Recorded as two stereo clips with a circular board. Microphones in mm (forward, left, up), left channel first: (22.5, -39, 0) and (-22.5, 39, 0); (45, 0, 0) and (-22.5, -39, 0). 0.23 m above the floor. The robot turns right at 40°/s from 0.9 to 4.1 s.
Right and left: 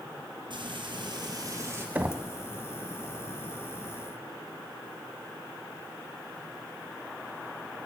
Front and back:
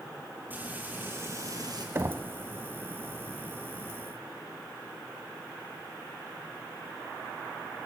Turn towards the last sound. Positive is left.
turn(degrees=-95)